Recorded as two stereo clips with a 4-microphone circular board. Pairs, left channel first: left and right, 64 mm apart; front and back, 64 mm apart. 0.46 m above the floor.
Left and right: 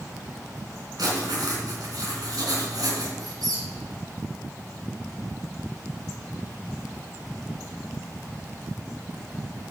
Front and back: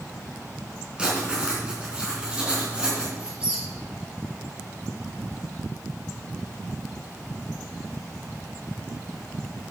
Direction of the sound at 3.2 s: 105° right.